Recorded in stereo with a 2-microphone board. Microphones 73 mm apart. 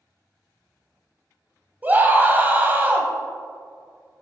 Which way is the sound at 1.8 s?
20° right (ahead or behind).